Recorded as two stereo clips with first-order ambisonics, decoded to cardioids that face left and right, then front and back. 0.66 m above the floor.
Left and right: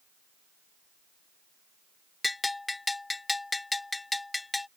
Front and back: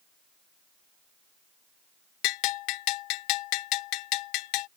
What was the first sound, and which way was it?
A bell, 10° left.